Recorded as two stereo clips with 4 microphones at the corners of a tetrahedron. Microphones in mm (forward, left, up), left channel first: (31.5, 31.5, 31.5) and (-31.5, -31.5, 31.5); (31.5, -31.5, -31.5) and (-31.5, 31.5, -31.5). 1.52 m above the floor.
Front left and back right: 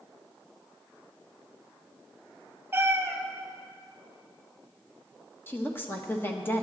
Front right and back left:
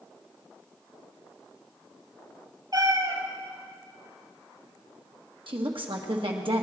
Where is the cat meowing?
160° left, 2.5 m.